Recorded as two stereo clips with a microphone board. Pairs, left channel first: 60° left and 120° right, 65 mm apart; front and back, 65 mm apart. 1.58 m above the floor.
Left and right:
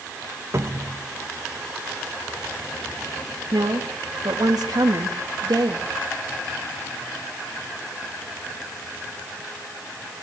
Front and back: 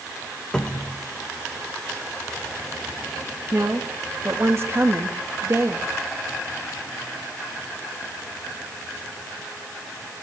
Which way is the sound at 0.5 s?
80° right.